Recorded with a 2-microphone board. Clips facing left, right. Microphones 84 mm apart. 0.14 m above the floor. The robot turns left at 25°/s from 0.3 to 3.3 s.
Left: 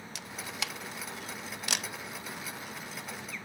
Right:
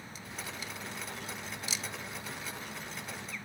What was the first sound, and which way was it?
A camera shutter, 75° left (ahead or behind).